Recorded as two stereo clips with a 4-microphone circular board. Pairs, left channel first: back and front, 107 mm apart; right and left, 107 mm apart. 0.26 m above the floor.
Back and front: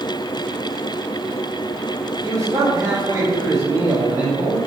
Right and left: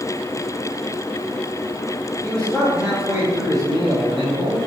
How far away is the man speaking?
About 1.3 m.